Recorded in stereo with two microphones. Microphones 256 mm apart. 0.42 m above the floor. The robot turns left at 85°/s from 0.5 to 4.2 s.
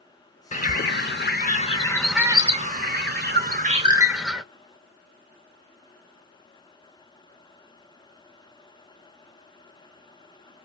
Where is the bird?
135° left, 0.7 m; by 4.4 s straight behind, 0.7 m.